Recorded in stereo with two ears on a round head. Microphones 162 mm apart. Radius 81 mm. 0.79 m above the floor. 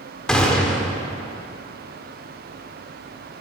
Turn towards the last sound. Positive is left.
turn(degrees=5)  # may be behind; listen again after turning